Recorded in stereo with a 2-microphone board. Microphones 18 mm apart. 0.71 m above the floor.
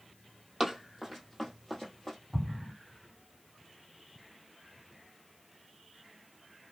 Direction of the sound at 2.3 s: 20° left (ahead or behind).